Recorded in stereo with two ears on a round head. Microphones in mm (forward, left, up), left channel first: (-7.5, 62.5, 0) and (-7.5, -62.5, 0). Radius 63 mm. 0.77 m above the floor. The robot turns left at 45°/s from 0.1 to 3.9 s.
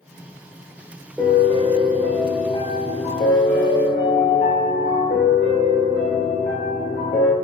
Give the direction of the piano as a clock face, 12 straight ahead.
6 o'clock.